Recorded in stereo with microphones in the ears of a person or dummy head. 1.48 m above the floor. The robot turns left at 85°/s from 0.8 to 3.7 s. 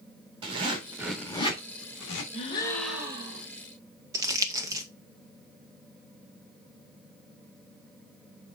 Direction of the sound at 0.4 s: 25° right (ahead or behind).